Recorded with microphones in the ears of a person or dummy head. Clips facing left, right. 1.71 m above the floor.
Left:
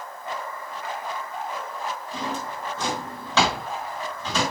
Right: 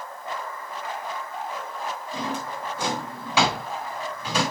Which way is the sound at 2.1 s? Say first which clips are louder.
Right 2 dB; 10° right (ahead or behind).